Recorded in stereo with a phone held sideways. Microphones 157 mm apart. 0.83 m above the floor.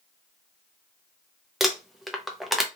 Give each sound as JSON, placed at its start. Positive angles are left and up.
{"t": 1.6, "sound": "crumpling", "side_deg": 0, "distance_m": 0.5}